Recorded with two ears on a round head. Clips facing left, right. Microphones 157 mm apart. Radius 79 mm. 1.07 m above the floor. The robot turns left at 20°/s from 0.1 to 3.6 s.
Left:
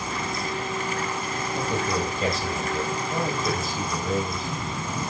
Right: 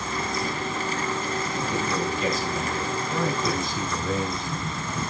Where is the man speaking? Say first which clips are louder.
Left 3 dB; 45° left, 5 m; by 5.0 s 5° left, 5 m.